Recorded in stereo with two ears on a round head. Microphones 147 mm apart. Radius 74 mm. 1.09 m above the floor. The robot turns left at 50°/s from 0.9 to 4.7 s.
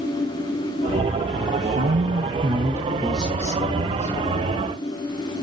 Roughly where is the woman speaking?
Right.